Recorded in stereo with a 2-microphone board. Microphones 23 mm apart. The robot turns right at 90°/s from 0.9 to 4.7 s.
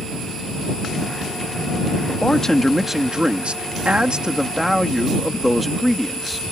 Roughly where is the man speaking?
Behind left.